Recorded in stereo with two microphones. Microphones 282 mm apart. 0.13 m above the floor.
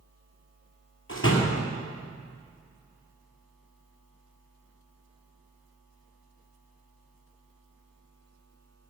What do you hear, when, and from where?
1.1 s a door slam: 45° left (ahead or behind), 2.5 m